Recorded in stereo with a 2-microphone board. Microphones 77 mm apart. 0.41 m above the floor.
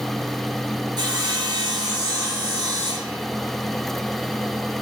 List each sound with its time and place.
1.0 s sawing: 65° right (ahead or behind), 2.5 m